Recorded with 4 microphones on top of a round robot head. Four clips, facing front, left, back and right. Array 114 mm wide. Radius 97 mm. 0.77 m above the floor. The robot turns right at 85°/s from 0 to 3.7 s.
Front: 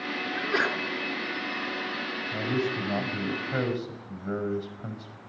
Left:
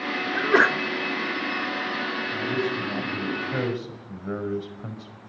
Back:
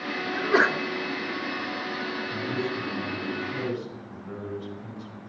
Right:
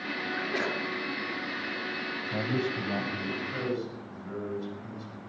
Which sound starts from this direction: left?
A sneeze, at 0.3 s.